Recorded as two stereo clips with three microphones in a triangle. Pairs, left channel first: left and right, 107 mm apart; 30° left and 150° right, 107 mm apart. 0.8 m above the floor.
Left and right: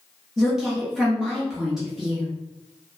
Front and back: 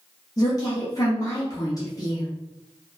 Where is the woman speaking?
5° right, 0.7 m.